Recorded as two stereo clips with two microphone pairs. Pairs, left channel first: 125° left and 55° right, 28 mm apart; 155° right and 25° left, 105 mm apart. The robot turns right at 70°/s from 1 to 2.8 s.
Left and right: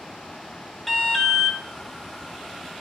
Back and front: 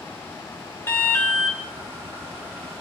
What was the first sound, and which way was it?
An alarm, 175° right.